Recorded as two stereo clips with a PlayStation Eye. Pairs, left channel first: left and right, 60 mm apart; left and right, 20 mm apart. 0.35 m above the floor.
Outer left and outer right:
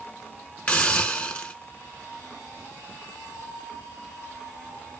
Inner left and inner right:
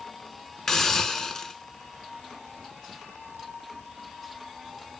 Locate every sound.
0.7 s a hiss: 20° left (ahead or behind), 0.7 m